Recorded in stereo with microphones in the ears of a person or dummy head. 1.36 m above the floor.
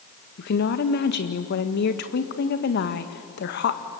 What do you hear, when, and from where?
0.4 s a woman speaking: 60° left (ahead or behind), 1.6 m